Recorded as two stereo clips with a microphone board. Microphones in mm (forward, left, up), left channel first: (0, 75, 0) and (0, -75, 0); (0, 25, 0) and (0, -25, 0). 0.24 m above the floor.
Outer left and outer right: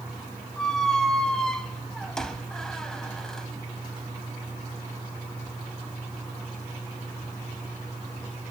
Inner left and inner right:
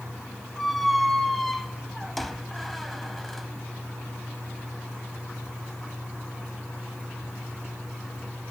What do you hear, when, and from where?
0.6 s a squeak: 5° left (ahead or behind), 0.7 m